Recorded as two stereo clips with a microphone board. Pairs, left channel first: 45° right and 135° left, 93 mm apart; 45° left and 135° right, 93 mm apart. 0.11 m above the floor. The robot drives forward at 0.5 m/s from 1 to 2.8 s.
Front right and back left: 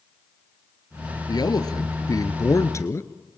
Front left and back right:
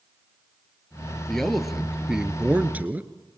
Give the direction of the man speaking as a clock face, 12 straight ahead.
1 o'clock.